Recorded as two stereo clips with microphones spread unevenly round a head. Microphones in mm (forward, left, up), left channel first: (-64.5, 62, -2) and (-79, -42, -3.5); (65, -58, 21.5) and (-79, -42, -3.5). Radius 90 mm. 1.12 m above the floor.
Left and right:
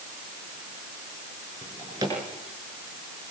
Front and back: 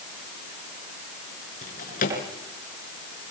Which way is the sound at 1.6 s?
25° right.